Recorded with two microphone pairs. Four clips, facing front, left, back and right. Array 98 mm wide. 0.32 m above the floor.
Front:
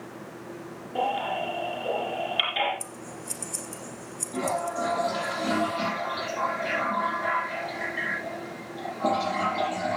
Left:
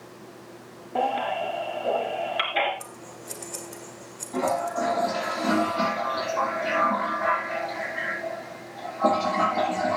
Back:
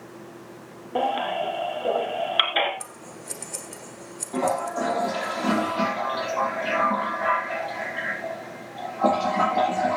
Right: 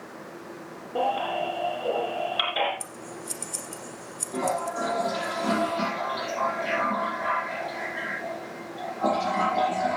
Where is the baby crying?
175° right, 4 m.